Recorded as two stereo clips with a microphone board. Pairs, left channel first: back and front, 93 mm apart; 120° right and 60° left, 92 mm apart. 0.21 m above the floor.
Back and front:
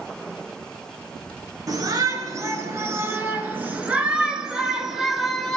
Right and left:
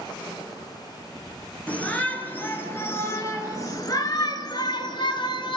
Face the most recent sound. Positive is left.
turn(degrees=-95)